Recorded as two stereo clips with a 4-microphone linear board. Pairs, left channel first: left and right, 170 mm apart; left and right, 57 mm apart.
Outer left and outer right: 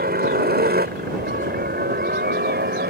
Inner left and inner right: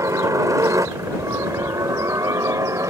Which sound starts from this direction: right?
A helicopter, at 0.0 s.